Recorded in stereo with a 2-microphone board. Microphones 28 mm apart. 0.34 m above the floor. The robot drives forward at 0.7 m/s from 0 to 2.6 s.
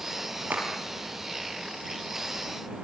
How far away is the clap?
About 7 m.